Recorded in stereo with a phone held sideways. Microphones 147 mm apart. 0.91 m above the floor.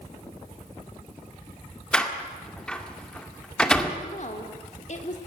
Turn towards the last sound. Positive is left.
turn(degrees=55)  # may be behind; listen again after turning